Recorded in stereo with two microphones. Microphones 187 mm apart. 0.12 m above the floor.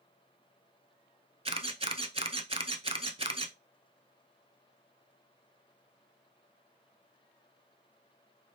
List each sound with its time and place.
1.4 s a camera shutter: 30° right (ahead or behind), 0.6 m